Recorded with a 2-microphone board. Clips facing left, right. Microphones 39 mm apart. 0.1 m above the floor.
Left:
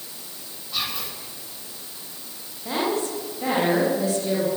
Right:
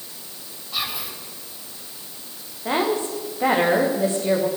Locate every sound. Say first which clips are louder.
0.7 s whispering: right 1 dB; 10° right (ahead or behind), 6 m
2.6 s a woman speaking: right 3 dB; 30° right (ahead or behind), 7 m